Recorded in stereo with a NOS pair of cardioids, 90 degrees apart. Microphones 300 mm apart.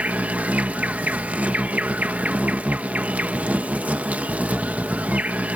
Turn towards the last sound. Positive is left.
turn(degrees=-5)